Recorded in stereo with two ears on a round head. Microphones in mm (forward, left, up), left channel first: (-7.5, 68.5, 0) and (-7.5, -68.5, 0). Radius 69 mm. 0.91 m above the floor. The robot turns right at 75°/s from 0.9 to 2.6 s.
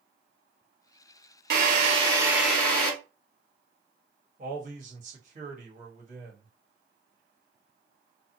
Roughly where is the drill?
Right.